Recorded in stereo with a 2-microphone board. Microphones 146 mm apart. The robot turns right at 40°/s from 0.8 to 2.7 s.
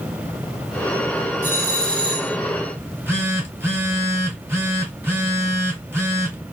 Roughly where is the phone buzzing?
Centre.